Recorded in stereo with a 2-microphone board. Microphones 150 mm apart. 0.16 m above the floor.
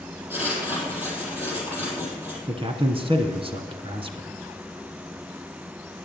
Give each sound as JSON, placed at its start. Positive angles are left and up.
{"t": 0.3, "sound": "writing", "side_deg": -15, "distance_m": 5.0}
{"t": 2.5, "sound": "a man speaking", "side_deg": -35, "distance_m": 1.4}